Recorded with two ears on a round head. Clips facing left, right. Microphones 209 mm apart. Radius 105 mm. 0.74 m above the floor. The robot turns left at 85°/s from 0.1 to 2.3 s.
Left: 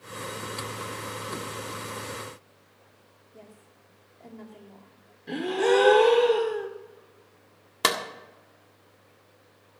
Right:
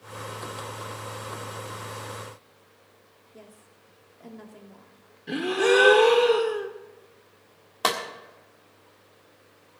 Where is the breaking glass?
No breaking glass in this recording.